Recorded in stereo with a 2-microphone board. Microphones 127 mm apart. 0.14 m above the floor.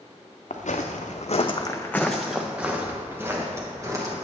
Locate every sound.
0.5 s footsteps: 75° left (ahead or behind), 1.0 m; by 4.1 s 25° right (ahead or behind), 2.5 m